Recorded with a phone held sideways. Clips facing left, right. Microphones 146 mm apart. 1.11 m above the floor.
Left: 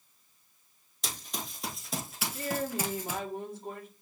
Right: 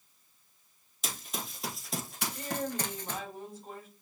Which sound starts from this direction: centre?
Running footsteps, at 1.0 s.